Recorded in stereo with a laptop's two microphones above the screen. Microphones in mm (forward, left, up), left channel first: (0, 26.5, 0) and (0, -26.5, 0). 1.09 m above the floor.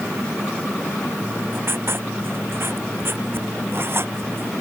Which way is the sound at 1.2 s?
45° right (ahead or behind).